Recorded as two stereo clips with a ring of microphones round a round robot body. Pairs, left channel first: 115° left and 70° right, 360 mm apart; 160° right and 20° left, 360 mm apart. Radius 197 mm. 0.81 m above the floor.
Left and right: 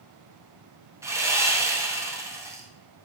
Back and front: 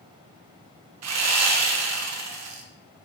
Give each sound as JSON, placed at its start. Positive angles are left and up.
{"t": 1.0, "sound": "sawing", "azimuth_deg": 10, "distance_m": 0.6}